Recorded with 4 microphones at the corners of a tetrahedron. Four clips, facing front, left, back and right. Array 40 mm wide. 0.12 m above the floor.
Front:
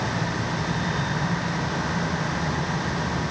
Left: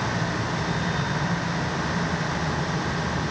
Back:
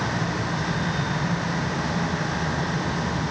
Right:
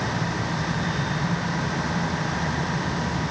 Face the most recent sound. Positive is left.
No sound to turn to.